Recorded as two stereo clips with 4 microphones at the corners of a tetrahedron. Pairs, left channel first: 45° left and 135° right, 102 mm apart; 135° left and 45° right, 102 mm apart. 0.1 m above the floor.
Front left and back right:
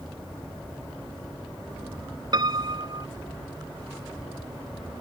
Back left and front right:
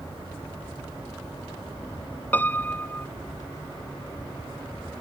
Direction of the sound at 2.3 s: 160° right.